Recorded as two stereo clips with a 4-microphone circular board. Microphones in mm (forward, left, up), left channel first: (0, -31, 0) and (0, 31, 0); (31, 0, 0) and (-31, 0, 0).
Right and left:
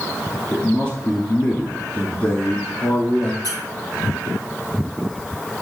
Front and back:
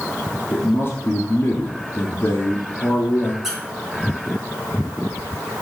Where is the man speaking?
30° right, 1.5 m.